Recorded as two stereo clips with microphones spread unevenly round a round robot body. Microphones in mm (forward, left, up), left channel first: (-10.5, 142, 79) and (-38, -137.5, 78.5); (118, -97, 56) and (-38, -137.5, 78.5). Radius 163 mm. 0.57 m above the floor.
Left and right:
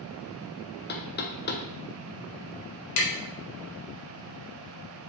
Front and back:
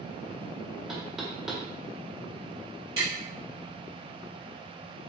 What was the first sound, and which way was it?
Knocking, 95° left.